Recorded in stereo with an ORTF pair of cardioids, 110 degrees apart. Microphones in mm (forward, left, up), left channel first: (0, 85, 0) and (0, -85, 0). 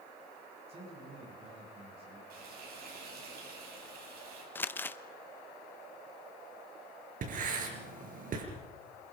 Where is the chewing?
No chewing in this recording.